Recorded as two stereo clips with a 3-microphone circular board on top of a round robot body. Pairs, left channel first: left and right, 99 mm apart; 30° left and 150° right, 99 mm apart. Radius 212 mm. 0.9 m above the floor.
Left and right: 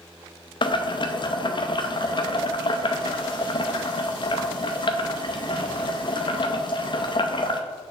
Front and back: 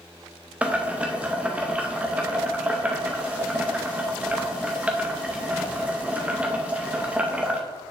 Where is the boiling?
130° left, 0.8 m.